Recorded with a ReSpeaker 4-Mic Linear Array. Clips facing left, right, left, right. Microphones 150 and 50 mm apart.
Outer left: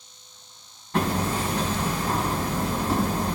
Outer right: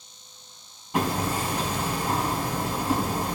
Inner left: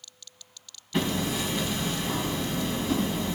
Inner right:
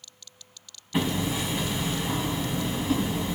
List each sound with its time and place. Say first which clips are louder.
0.9 s hammering: outer left 1 dB, inner right 1 dB; 15° right (ahead or behind), 2.5 m